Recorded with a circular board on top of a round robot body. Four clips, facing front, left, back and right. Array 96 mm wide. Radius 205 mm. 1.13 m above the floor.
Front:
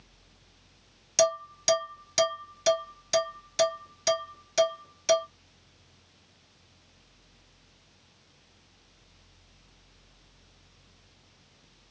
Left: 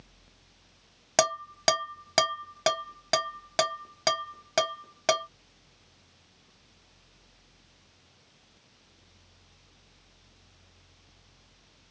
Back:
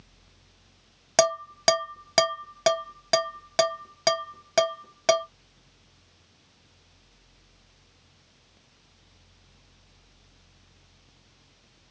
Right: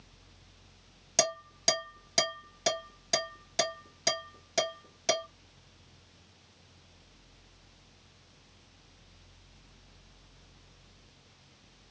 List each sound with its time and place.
1.2 s dishes clattering: 145° left, 1.3 m